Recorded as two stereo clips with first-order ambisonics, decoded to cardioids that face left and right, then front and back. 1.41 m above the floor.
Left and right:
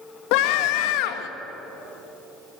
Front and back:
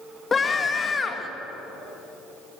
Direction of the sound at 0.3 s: 75° left.